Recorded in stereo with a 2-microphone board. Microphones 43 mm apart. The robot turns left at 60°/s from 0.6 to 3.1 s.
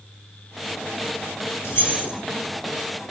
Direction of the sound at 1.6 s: 65° left (ahead or behind).